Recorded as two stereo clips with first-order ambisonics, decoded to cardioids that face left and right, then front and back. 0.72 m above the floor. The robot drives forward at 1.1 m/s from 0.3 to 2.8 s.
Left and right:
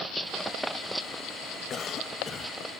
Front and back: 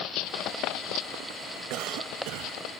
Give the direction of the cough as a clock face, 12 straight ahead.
7 o'clock.